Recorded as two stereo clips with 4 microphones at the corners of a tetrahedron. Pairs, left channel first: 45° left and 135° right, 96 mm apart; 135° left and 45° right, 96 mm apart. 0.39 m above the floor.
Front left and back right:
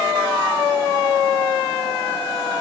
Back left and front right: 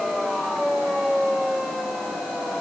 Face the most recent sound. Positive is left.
No sound to turn to.